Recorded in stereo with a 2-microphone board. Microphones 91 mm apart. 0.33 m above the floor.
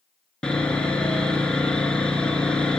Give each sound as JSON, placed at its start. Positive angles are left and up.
{"t": 0.4, "sound": "sawing", "side_deg": 10, "distance_m": 2.5}